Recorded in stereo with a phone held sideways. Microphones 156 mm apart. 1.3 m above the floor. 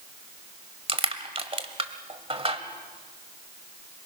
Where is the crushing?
40° right (ahead or behind), 1.4 m.